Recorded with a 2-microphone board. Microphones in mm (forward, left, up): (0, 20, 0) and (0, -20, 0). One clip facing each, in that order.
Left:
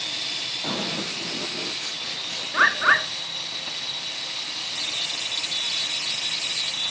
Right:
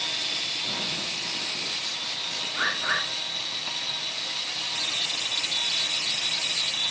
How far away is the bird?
About 2 m.